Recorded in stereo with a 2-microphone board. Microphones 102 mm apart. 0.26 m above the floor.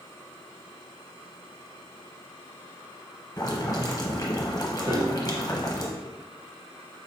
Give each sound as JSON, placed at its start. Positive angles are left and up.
{"t": 3.4, "sound": "boiling", "side_deg": 40, "distance_m": 0.9}
{"t": 4.9, "sound": "a piano", "side_deg": -40, "distance_m": 0.7}